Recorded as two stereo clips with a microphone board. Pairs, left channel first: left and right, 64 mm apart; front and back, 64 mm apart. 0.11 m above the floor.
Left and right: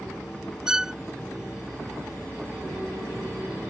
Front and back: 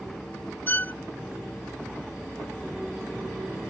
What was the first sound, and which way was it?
A violin, 20° right.